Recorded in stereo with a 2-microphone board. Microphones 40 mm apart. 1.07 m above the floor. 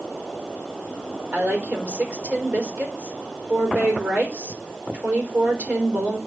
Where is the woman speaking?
35° right (ahead or behind), 4 m.